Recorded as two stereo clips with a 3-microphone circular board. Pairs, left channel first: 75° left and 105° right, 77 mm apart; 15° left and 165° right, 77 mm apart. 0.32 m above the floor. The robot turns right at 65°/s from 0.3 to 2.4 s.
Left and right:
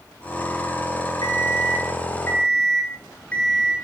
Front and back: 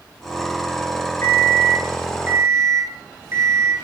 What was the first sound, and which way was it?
An alarm clock, 65° left.